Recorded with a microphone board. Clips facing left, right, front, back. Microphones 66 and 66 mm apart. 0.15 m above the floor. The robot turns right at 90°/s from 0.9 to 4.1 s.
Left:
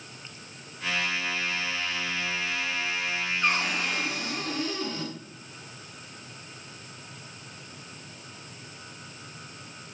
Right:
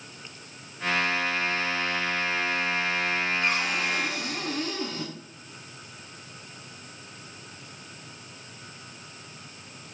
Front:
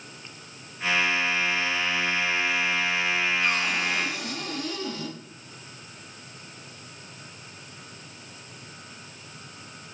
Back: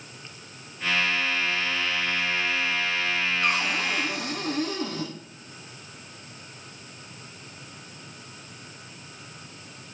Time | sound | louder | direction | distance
3.4 | a cupboard door | even, even | 135° left | 9.5 m